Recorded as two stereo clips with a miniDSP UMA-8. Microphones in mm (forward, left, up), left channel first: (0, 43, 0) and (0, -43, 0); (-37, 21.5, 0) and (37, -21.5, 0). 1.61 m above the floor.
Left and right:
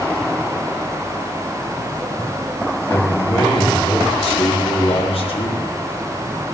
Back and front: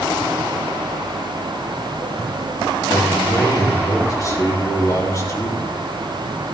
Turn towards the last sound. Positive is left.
turn(degrees=100)